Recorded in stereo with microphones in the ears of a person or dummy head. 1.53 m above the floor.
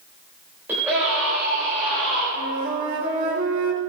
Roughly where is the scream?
Centre.